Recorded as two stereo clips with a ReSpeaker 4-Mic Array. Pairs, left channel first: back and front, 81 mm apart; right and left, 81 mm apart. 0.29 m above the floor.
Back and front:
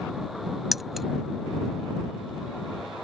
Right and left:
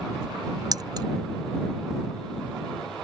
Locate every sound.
0.7 s keys jangling: 90° left